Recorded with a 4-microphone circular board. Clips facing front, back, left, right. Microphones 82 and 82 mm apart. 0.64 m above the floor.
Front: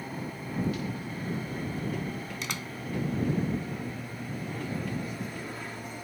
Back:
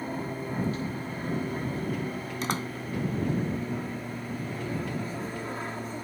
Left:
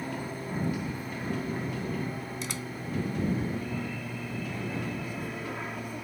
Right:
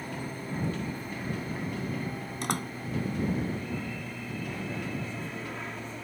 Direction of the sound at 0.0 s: 160° left.